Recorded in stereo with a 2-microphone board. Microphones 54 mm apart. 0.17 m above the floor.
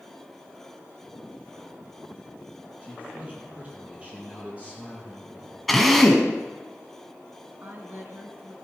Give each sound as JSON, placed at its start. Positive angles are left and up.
{"t": 2.8, "sound": "a man speaking", "side_deg": -25, "distance_m": 4.5}
{"t": 5.7, "sound": "a drill", "side_deg": 0, "distance_m": 1.5}
{"t": 7.6, "sound": "a woman speaking", "side_deg": -45, "distance_m": 2.0}